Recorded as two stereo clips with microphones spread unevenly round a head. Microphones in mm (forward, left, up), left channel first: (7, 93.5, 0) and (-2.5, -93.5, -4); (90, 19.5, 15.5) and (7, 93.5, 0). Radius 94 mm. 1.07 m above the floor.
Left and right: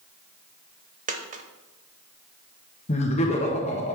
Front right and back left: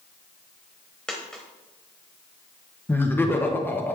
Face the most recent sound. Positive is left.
turn(degrees=35)